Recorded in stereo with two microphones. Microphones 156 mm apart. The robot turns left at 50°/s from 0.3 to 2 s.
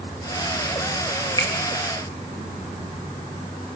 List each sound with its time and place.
1.4 s a finger snap: 25° left (ahead or behind), 1.7 m; by 1.5 s 20° left (ahead or behind), 1.7 m